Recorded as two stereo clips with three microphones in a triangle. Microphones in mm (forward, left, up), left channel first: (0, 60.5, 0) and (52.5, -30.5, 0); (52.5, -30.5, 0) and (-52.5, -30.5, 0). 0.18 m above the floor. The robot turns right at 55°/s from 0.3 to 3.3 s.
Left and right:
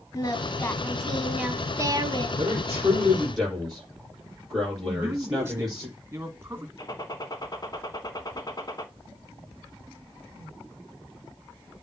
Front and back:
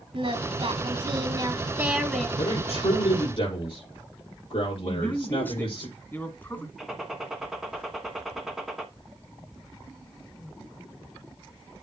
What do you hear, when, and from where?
0.1 s singing: 175° left, 1.2 m; by 2.3 s 80° right, 1.2 m
2.4 s a man speaking: 15° right, 6 m; by 5.9 s 35° left, 6 m
4.9 s a man speaking: 45° right, 1.7 m
6.8 s a gunshot: 95° left, 1.3 m